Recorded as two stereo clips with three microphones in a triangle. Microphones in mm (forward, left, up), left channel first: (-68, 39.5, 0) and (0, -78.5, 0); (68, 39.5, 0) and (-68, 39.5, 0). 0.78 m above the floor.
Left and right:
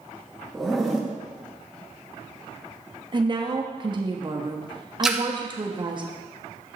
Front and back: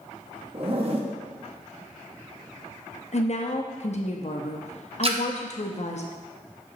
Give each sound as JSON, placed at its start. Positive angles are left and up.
{"t": 0.5, "sound": "a zipper", "azimuth_deg": -150, "distance_m": 0.9}
{"t": 3.1, "sound": "a woman speaking", "azimuth_deg": -15, "distance_m": 0.8}
{"t": 5.0, "sound": "a splash", "azimuth_deg": -145, "distance_m": 0.7}